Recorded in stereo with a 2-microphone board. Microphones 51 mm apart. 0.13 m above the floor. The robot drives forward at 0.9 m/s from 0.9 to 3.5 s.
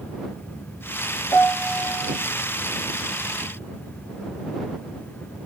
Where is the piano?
70° left (ahead or behind), 3.5 m; by 2.2 s 65° left (ahead or behind), 3.5 m.